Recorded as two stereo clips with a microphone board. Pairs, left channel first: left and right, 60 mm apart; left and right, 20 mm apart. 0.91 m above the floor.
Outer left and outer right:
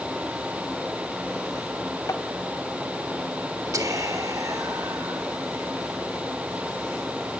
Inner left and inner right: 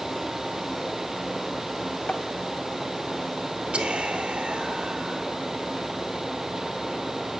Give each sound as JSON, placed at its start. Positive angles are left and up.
{"t": 2.1, "sound": "tapping", "side_deg": 60, "distance_m": 2.0}
{"t": 3.7, "sound": "whispering", "side_deg": -70, "distance_m": 3.5}